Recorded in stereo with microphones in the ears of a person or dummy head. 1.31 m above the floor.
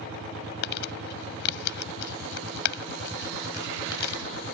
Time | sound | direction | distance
0.6 | crumpling | 70° left (ahead or behind) | ?